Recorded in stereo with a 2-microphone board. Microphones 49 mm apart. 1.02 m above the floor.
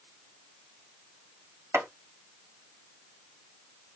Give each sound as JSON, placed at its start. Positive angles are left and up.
{"t": 1.7, "sound": "chopping", "side_deg": -75, "distance_m": 1.8}